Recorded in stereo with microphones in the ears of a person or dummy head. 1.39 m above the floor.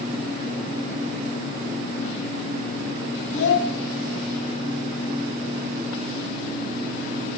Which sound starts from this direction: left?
A child speaking, at 3.3 s.